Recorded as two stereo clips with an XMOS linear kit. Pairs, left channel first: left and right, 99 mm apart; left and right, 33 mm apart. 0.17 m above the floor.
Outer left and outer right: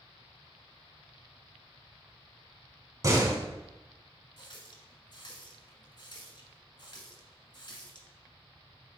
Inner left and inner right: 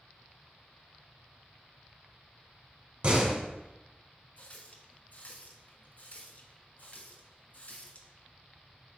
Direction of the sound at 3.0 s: 35° right (ahead or behind).